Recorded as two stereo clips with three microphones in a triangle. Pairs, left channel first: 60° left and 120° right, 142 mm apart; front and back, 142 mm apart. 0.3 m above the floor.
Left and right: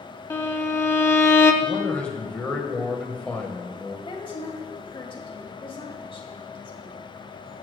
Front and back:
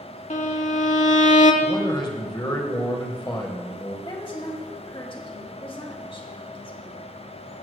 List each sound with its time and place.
0.3 s a violin: 10° right, 0.8 m
1.6 s a man speaking: 15° right, 1.4 m
4.0 s a woman speaking: 30° left, 1.7 m